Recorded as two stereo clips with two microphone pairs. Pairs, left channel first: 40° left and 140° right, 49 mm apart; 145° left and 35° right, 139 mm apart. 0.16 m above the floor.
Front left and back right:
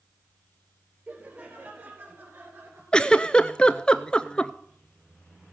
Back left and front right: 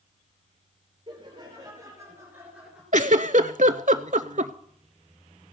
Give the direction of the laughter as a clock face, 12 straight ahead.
3 o'clock.